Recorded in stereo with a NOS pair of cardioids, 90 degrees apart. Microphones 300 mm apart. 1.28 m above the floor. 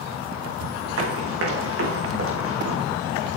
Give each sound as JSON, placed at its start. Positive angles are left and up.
{"t": 1.0, "sound": "running footsteps", "azimuth_deg": -50, "distance_m": 6.0}